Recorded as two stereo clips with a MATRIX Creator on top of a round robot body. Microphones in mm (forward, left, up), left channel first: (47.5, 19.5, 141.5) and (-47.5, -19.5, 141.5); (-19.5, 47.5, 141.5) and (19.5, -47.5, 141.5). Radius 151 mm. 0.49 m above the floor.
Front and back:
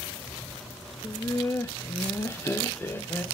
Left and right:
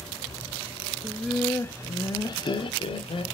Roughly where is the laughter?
Ahead.